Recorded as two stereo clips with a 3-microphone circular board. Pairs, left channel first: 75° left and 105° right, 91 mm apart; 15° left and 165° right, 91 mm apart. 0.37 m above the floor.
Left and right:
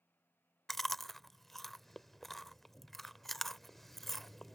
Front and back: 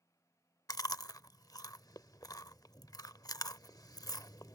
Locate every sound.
0.7 s chewing: 15° right